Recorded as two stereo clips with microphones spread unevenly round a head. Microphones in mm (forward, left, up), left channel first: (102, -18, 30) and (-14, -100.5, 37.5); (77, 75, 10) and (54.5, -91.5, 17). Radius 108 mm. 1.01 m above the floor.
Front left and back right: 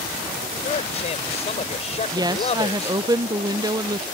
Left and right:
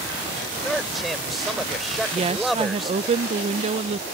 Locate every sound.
0.6 s a man speaking: 10° right
2.1 s a woman speaking: 105° right